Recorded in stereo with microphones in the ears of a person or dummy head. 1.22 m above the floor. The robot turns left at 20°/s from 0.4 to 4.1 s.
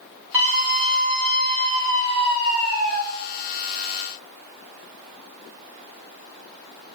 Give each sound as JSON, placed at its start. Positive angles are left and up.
{"t": 0.3, "sound": "a scream", "azimuth_deg": -165, "distance_m": 0.8}